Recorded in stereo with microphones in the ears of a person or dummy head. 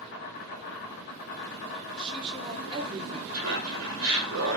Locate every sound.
0.0 s an insect: 50° left (ahead or behind), 1.1 m
2.0 s a woman speaking: 25° right (ahead or behind), 0.8 m
3.3 s laughter: 80° right, 1.5 m